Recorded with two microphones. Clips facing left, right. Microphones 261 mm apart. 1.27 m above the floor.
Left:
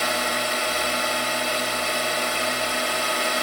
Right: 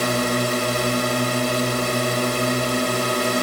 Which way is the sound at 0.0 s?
55° right (ahead or behind).